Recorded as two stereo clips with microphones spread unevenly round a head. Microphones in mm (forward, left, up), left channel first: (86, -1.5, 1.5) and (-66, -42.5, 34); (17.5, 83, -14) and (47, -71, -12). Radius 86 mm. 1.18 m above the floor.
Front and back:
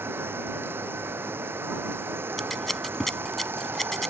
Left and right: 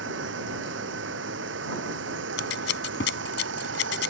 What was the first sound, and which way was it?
Running water, 90° right.